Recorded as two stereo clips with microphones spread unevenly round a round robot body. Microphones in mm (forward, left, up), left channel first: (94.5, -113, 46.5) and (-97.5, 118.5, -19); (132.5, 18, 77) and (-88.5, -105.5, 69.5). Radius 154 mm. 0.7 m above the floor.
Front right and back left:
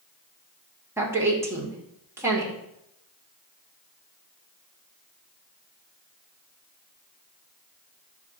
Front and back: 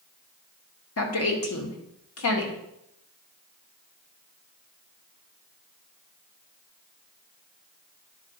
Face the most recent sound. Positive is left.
turn(degrees=55)